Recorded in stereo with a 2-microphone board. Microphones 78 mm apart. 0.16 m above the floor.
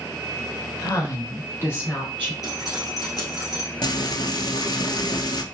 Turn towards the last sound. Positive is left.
turn(degrees=65)  # may be behind; listen again after turning